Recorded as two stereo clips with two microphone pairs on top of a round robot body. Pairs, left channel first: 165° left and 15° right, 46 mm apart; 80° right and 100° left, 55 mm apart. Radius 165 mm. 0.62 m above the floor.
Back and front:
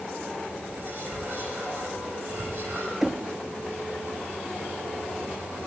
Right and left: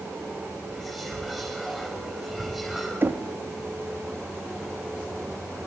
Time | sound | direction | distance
0.7 | whispering | 15° left | 3.5 m
3.0 | knocking | 65° left | 1.0 m